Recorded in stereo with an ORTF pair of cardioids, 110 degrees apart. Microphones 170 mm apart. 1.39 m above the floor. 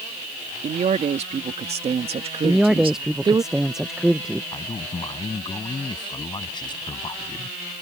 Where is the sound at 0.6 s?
45° right; by 3.4 s 25° right.